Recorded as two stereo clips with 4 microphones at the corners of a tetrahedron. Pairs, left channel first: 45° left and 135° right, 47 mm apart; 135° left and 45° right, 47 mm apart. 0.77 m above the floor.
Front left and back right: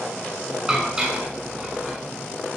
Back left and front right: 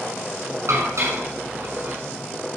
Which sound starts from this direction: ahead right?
Dishes clattering, at 0.7 s.